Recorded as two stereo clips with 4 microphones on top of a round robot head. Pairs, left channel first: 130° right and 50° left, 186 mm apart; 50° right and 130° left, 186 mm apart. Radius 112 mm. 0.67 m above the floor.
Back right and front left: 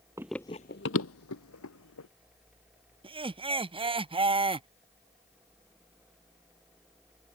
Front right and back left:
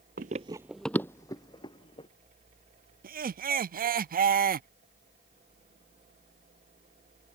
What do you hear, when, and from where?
0.2 s running footsteps: 120° left; by 2.1 s 115° right
3.0 s laughter: 105° left